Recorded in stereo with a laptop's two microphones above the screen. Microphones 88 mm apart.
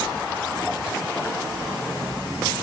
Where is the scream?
I don't hear a scream.